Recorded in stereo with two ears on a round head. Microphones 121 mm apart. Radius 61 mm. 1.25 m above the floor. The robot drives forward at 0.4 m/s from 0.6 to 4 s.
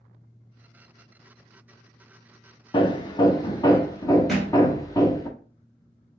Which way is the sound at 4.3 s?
Centre (ahead or behind).